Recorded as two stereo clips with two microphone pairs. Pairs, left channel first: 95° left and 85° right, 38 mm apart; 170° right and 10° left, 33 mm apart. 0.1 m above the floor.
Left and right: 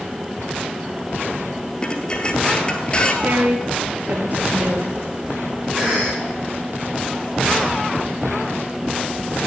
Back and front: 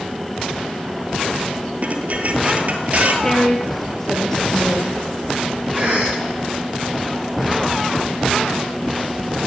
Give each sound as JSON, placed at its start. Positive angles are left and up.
{"t": 1.8, "sound": "dishes clattering", "azimuth_deg": 30, "distance_m": 1.6}
{"t": 3.2, "sound": "a woman speaking", "azimuth_deg": -100, "distance_m": 2.5}
{"t": 5.8, "sound": "a cough", "azimuth_deg": -10, "distance_m": 5.5}